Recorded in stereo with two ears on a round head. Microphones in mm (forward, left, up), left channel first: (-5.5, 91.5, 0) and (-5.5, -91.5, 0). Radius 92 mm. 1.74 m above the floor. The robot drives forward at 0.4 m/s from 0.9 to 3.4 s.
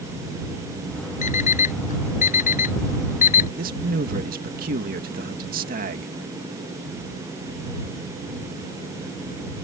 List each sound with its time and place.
1.2 s an alarm clock: 40° left (ahead or behind)
3.6 s a man speaking: 45° right (ahead or behind)